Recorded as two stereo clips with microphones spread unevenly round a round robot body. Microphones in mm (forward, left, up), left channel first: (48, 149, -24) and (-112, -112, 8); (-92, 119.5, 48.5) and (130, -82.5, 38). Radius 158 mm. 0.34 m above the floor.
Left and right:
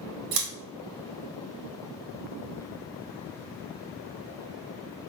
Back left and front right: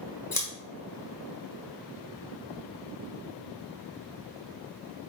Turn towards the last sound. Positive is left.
turn(degrees=-145)